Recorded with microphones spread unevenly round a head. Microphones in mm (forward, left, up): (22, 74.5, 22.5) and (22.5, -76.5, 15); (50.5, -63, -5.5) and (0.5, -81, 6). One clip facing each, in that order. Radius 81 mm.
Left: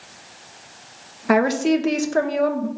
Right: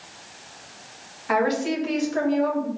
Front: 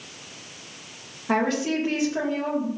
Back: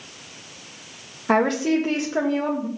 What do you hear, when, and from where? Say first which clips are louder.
1.3 s a woman speaking: left 5 dB, back 4 dB; 130° left, 2 m